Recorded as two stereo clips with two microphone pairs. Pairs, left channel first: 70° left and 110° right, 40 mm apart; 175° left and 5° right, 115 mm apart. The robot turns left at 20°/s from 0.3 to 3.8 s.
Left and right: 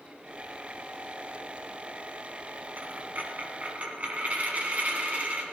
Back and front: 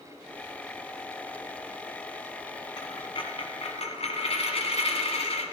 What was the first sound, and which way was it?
A dropped coin, 135° right.